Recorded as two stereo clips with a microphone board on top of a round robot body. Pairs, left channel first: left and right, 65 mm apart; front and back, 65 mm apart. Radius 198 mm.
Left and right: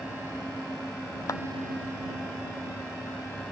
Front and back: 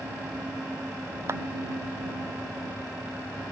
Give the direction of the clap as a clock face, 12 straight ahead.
8 o'clock.